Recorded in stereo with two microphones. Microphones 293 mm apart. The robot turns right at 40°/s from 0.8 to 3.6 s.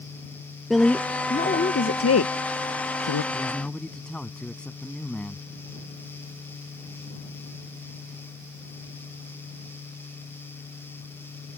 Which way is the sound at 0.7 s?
Centre (ahead or behind).